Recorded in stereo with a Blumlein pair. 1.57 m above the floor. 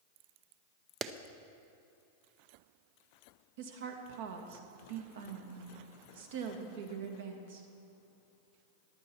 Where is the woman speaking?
55° right, 1.7 m.